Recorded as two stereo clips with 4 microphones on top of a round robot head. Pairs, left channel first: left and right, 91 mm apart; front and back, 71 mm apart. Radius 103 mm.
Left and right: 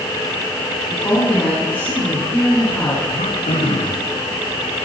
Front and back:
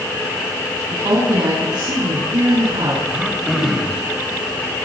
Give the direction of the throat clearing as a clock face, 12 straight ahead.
9 o'clock.